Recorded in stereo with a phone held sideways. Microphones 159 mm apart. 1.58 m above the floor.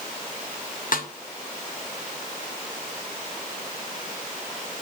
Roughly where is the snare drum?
Left.